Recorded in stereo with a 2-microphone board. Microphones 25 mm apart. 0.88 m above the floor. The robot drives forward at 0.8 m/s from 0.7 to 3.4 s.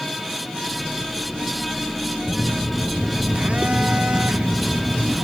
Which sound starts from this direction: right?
A phone buzzing, at 2.2 s.